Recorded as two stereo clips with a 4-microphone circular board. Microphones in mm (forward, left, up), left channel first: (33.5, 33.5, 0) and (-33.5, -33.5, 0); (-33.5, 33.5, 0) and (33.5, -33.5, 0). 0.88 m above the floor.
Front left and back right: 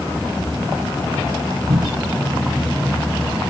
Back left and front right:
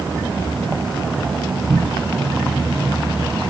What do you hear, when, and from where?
1.7 s a cupboard door: 125° right, 2.5 m